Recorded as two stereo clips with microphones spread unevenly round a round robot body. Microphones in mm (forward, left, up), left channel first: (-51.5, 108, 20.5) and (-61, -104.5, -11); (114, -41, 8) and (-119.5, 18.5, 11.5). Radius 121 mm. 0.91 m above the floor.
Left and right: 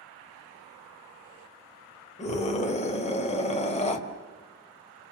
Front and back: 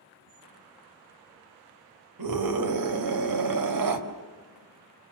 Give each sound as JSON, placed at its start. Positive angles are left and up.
{"t": 2.2, "sound": "a scream", "azimuth_deg": 150, "distance_m": 4.0}